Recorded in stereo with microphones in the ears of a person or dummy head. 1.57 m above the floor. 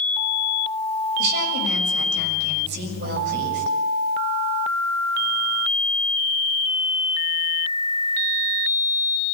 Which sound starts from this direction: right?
A woman speaking, at 1.2 s.